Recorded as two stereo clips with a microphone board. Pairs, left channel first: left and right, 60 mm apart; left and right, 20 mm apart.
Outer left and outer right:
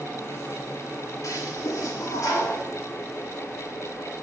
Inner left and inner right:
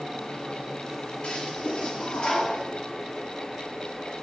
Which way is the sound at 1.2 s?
65° left (ahead or behind).